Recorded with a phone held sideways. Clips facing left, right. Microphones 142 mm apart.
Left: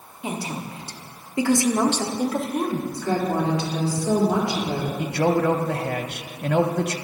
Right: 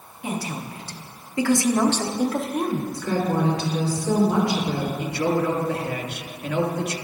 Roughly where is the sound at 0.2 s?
Left.